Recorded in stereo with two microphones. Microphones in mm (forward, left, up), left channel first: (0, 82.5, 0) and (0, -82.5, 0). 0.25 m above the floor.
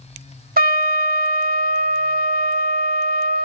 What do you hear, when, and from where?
0.6 s a trumpet: 65° right (ahead or behind), 0.6 m